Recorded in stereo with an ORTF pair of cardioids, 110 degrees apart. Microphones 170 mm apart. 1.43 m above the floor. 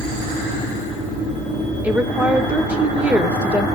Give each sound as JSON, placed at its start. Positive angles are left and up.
{"t": 1.8, "sound": "a woman speaking", "azimuth_deg": -5, "distance_m": 1.6}